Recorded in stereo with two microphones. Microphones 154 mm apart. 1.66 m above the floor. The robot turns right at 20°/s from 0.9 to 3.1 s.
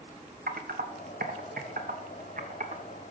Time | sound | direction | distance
0.5 | typing on a keyboard | 85° right | 1.0 m